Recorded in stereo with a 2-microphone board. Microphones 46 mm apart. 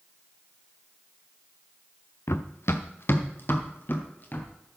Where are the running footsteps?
70° left (ahead or behind), 0.8 m; by 4.5 s 45° left (ahead or behind), 2.5 m.